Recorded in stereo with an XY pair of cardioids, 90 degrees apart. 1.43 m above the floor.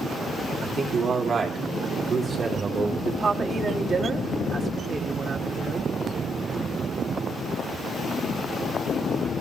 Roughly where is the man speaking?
Ahead right.